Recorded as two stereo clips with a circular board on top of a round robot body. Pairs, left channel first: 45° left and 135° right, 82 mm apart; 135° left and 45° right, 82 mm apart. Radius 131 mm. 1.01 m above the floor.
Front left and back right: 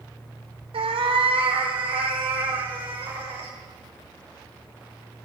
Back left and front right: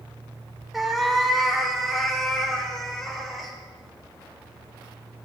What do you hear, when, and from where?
0.7 s a cat meowing: 135° right, 1.1 m; by 3.5 s 140° right, 3 m